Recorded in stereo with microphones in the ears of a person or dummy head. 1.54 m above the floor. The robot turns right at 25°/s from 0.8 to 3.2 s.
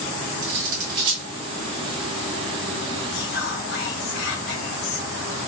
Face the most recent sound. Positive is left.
turn(degrees=55)  # may be behind; listen again after turning